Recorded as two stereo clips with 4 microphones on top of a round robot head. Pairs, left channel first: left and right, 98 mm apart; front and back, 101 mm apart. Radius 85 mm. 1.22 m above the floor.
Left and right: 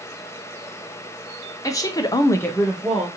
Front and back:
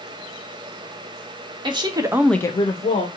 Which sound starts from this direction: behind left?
A woman speaking, at 1.6 s.